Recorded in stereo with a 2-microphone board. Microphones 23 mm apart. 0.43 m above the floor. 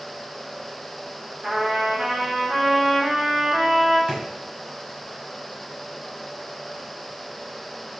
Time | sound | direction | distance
1.4 | a trumpet | 45° right (ahead or behind) | 2.0 m
4.1 | a drawer | 55° right (ahead or behind) | 1.2 m